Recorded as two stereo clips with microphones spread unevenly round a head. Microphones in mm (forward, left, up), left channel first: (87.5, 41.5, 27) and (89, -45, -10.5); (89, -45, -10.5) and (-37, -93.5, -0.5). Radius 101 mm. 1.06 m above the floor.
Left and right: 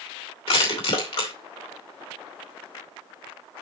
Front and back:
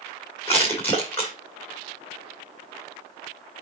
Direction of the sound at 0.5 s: 100° left.